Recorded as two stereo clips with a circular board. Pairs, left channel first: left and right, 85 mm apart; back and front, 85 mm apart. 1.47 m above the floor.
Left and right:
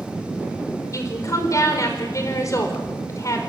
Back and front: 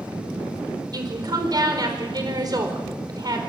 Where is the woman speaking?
40° left, 4.5 m.